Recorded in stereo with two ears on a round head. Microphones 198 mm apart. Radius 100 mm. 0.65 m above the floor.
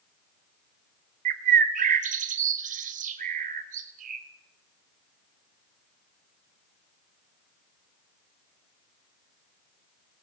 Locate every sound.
1.2 s a bird: 35° right (ahead or behind), 0.7 m